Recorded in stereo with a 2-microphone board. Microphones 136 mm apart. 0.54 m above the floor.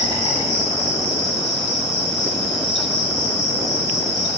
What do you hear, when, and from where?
0.0 s an insect: 35° right (ahead or behind), 3 m